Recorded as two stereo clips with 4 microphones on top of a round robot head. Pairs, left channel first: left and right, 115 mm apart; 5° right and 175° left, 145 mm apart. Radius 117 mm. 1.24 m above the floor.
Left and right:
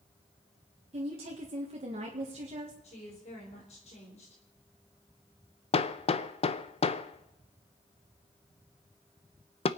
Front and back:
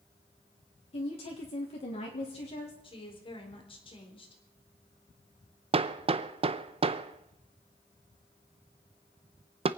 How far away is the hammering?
About 0.6 m.